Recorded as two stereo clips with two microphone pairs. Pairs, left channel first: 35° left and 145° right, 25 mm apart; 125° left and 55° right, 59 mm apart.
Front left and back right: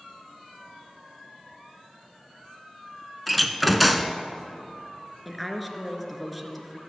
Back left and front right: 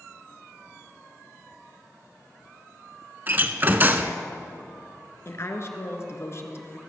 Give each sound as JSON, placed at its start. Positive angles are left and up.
{"t": 3.3, "sound": "a door slam", "azimuth_deg": -60, "distance_m": 0.9}
{"t": 5.2, "sound": "a woman speaking", "azimuth_deg": 120, "distance_m": 2.0}